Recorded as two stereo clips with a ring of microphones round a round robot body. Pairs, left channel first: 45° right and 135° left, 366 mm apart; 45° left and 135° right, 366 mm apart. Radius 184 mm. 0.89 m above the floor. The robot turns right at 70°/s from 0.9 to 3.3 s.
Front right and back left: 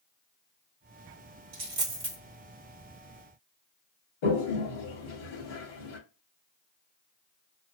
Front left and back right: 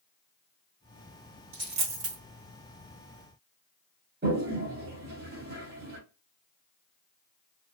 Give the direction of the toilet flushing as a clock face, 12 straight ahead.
2 o'clock.